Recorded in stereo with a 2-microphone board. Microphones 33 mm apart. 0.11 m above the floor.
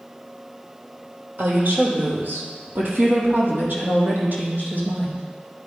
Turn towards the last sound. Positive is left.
turn(degrees=-65)  # may be behind; listen again after turning